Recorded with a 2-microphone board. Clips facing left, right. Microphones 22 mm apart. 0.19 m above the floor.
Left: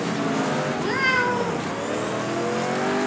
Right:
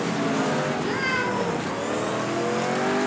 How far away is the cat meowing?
About 1.3 m.